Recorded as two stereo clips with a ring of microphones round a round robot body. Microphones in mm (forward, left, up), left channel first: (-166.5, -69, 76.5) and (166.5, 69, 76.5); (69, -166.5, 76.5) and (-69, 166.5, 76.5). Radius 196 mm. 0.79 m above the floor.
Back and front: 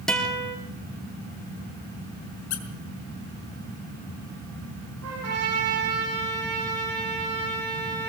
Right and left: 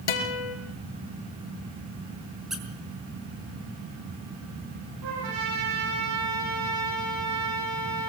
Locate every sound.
0.1 s a guitar: 70° right, 3.5 m
2.5 s a squeak: 160° right, 3 m
5.0 s a trumpet: 75° left, 9.5 m